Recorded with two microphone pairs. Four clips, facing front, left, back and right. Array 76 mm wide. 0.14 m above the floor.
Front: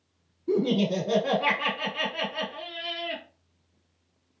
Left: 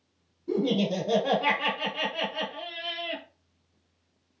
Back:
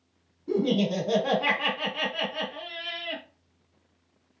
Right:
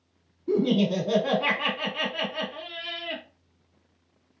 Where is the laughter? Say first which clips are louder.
Right 3 dB, front 1 dB; 90° right, 1.1 m.